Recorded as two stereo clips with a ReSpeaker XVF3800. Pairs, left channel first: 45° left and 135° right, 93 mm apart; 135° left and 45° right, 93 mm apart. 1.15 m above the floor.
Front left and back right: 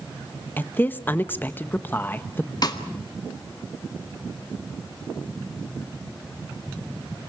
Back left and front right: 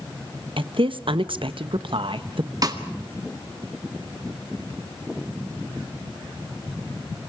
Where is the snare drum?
Straight ahead, 1.8 m.